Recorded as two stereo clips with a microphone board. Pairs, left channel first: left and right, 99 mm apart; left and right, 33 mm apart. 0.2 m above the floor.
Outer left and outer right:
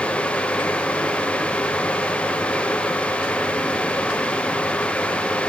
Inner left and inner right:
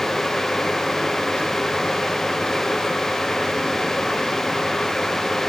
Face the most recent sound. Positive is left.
No sound to turn to.